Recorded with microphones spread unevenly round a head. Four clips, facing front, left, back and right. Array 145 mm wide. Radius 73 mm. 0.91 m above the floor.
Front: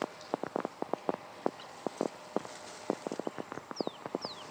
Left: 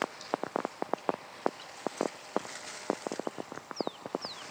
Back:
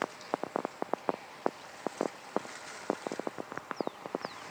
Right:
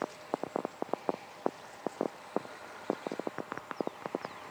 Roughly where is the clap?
No clap in this recording.